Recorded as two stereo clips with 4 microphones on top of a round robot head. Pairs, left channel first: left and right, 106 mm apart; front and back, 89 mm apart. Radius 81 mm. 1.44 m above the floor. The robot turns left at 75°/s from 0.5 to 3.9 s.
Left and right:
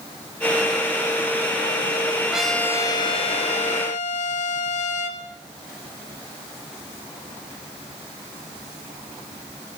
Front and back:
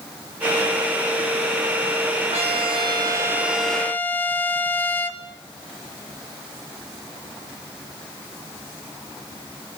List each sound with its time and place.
2.3 s a trumpet: 170° right, 3 m; by 5.2 s 70° left, 3 m